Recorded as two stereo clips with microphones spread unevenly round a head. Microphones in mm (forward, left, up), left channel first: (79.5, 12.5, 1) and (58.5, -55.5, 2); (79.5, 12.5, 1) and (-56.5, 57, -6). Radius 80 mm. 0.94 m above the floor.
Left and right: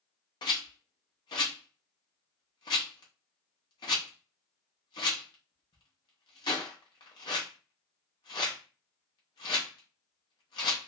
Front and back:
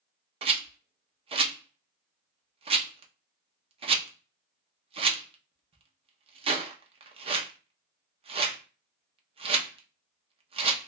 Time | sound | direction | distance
0.4 | a rattle | 115° left | 0.7 m